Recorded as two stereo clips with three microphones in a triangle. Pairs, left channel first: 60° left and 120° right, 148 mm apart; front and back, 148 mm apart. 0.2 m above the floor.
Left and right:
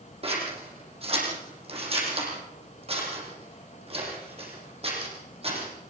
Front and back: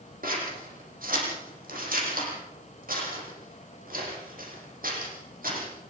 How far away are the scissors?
About 7.5 m.